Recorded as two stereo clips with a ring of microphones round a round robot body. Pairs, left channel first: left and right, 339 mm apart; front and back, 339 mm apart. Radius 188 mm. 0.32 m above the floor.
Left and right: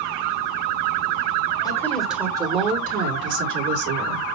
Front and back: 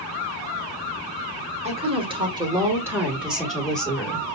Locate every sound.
1.6 s a woman speaking: 150° left, 1.3 m; by 4.2 s 85° right, 1.8 m